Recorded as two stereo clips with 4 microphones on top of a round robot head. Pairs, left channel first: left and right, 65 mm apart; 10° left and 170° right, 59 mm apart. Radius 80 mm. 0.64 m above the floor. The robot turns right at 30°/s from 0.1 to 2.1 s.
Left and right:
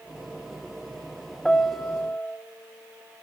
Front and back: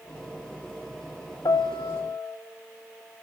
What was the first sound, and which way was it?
A piano, 5° left.